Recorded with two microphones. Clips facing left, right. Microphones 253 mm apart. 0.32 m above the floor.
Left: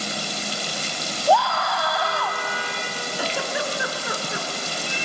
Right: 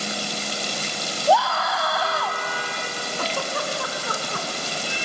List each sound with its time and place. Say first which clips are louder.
1.3 s a scream: even; centre (ahead or behind), 2.5 m
3.2 s a giggle: left 1 dB; 10° left (ahead or behind), 1.9 m